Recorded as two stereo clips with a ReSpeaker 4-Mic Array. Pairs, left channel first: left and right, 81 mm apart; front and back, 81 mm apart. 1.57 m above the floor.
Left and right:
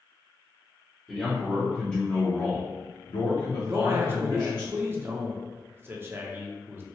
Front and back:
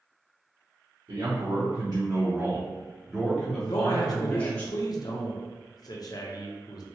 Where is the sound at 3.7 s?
30° right, 0.5 m.